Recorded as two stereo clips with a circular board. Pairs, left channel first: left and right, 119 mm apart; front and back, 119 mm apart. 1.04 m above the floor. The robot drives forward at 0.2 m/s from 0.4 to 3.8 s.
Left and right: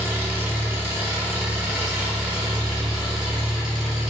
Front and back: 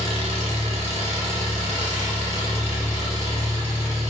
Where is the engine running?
160° right, 0.7 m; by 4.1 s 170° right, 1.4 m.